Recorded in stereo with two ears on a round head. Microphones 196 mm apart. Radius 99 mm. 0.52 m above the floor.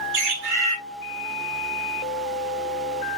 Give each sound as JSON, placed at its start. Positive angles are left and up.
{"t": 0.1, "sound": "a bird", "side_deg": -65, "distance_m": 1.9}